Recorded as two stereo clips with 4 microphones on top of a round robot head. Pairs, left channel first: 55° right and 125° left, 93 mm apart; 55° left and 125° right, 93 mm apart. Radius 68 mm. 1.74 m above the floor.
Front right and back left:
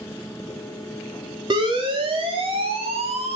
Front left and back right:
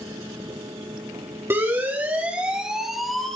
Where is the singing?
No singing in this recording.